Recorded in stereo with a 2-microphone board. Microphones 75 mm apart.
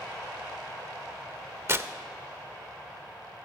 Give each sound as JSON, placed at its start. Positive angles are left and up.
{"t": 1.7, "sound": "tearing paper", "side_deg": -35, "distance_m": 0.5}